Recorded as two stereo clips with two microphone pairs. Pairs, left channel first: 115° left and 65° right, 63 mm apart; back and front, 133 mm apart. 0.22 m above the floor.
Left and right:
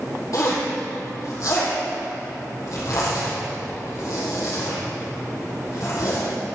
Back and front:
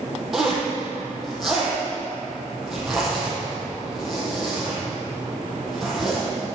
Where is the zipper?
85° left, 4.5 m.